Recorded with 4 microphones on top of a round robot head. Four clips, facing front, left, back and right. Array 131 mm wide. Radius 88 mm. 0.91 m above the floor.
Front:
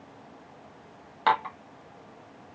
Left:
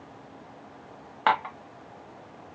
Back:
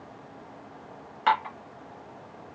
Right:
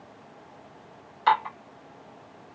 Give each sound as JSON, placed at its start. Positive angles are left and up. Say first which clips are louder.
{"t": 1.3, "sound": "dishes clattering", "louder": "right 2 dB, even", "azimuth_deg": 65, "distance_m": 1.3}